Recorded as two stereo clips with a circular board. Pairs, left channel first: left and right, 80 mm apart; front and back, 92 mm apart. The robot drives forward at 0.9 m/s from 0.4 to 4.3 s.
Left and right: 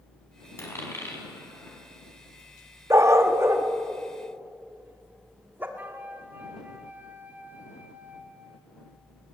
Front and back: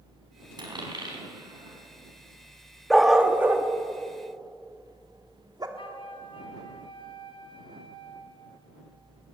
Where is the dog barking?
85° right, 1.2 m; by 5.7 s 150° right, 1.7 m.